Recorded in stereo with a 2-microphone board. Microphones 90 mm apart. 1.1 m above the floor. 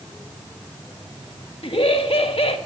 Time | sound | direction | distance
1.6 | laughter | 75° left (ahead or behind) | 1.5 m